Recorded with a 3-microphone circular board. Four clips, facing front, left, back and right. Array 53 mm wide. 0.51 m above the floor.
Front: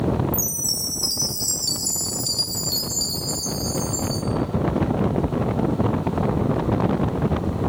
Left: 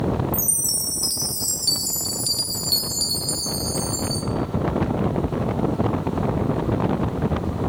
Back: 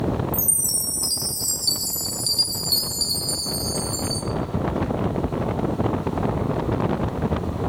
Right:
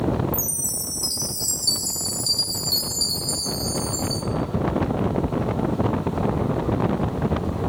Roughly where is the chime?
Left.